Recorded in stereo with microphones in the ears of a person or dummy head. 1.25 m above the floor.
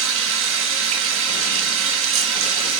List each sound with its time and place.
0.0 s running water: 70° right (ahead or behind), 1.2 m